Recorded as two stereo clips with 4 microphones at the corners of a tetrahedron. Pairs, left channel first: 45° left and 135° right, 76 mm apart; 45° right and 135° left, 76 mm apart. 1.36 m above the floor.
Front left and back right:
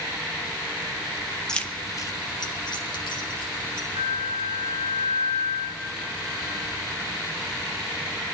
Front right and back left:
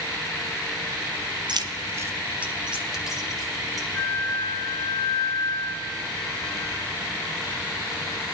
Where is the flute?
100° right, 3.5 m.